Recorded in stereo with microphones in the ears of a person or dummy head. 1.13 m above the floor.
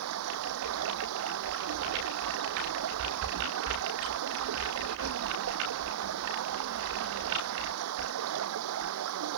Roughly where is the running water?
Right.